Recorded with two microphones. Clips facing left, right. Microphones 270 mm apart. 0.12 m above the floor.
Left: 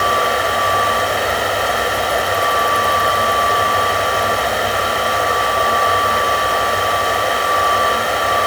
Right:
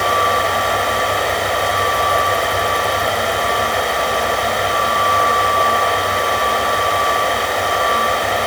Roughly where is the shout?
No shout in this recording.